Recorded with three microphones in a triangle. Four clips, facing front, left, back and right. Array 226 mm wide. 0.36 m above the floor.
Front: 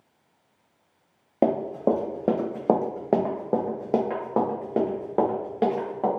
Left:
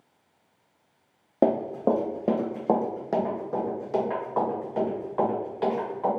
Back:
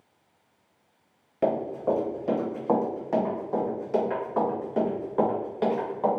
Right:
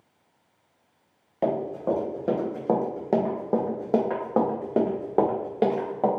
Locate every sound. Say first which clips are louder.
1.4 s running footsteps: left 3 dB, front 3 dB; 40° left, 1.5 m; by 6.1 s 70° right, 2.5 m